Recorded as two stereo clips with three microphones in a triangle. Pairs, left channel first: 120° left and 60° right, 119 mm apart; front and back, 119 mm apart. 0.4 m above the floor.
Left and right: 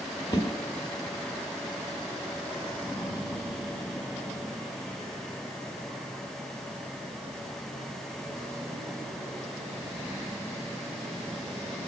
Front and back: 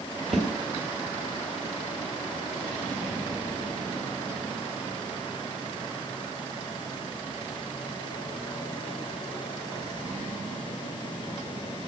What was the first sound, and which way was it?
A whoosh, 90° left.